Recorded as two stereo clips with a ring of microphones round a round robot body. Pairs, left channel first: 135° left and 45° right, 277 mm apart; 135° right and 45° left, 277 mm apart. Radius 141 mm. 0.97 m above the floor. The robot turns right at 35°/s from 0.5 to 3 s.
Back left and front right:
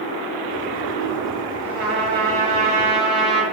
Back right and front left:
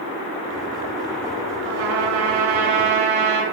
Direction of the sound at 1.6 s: 5° right.